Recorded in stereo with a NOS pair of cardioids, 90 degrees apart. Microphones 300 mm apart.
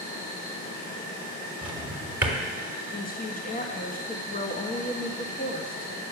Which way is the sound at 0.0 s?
35° left.